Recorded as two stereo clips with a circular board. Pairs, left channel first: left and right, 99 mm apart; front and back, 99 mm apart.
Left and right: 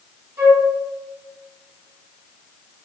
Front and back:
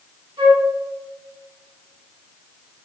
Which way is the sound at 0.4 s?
145° right.